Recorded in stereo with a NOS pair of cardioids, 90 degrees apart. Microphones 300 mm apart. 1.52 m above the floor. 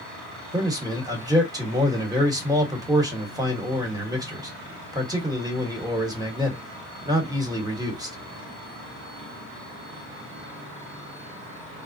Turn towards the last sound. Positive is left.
turn(degrees=-10)